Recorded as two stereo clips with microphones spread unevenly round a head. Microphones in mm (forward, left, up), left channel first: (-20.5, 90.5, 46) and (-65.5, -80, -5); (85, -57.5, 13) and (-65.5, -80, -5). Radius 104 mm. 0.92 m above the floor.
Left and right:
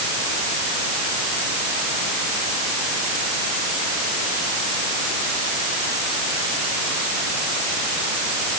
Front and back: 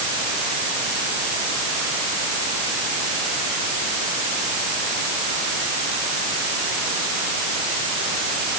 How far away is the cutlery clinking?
I don't hear cutlery clinking.